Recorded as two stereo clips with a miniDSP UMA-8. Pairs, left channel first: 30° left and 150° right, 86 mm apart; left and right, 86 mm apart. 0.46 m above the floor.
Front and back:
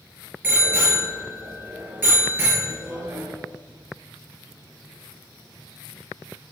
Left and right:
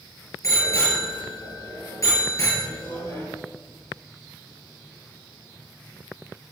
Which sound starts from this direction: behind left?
A bicycle bell, at 0.4 s.